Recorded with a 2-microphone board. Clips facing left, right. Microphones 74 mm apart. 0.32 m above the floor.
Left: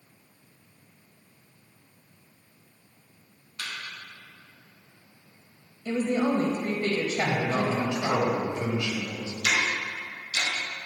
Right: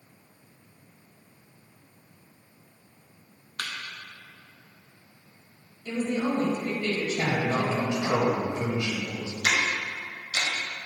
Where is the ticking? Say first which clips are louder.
Even; 40° right (ahead or behind), 1.4 m.